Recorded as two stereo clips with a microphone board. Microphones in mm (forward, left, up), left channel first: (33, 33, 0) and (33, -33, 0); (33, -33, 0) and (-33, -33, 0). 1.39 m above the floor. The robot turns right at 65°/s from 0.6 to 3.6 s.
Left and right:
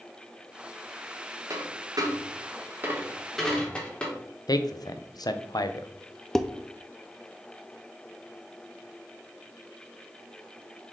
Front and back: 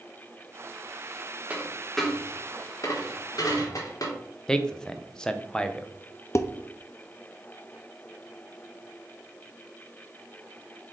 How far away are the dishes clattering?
About 0.6 m.